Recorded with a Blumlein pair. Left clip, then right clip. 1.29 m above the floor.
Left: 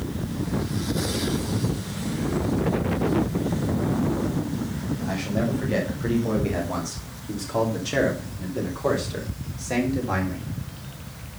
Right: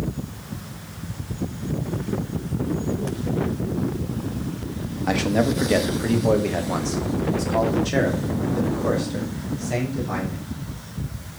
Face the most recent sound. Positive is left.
turn(degrees=10)